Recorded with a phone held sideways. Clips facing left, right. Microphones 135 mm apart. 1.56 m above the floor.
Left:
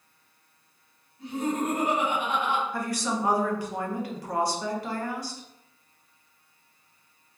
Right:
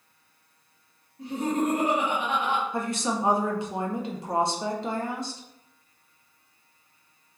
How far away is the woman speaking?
About 0.6 m.